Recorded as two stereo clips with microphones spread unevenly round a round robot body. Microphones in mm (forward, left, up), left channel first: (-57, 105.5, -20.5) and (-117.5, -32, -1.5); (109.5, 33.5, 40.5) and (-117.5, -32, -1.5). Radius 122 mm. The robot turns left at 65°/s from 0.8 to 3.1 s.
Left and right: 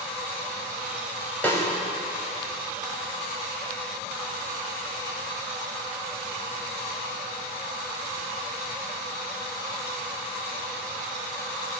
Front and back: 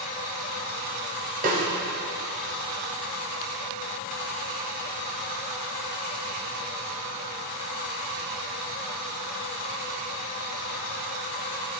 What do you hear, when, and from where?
1.4 s a snare drum: 145° left, 1.4 m; by 1.7 s 130° left, 1.4 m